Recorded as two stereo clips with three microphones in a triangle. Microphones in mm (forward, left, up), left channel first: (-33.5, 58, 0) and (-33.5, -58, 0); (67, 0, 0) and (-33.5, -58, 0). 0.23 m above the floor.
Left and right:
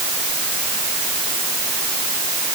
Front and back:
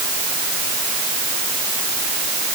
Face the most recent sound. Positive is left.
No sound to turn to.